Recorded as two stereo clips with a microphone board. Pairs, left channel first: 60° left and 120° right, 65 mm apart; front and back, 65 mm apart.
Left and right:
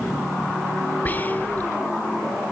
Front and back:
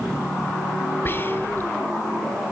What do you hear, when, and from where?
1.1 s whispering: 25° left, 1.5 m